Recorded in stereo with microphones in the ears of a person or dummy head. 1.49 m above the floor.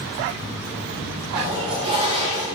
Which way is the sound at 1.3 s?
30° right (ahead or behind).